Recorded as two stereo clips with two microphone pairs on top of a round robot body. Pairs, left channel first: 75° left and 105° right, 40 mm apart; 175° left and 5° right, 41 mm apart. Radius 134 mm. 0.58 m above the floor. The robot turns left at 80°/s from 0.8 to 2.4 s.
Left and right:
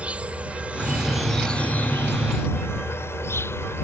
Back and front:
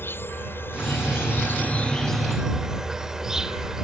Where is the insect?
160° right; by 3.8 s 70° left.